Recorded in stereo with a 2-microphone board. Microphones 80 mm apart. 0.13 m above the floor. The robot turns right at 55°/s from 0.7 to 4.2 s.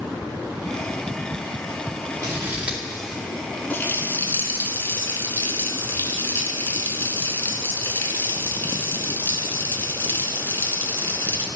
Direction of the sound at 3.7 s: 25° left (ahead or behind).